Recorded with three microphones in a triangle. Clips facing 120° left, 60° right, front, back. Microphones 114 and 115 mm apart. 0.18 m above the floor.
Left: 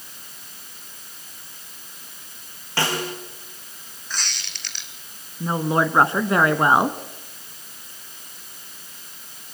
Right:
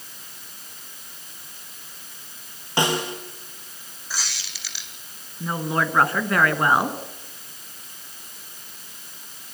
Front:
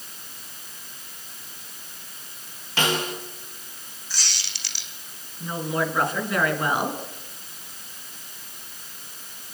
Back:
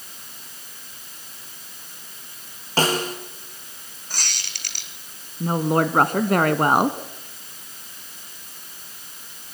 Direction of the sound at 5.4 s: Straight behind.